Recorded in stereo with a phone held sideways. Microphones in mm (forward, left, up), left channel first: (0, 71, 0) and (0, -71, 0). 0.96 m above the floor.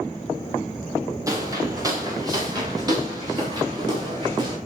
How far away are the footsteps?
About 5 m.